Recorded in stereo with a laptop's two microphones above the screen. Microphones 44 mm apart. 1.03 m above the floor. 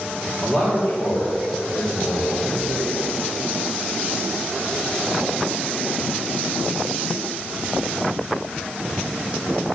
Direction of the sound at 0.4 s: 30° left (ahead or behind).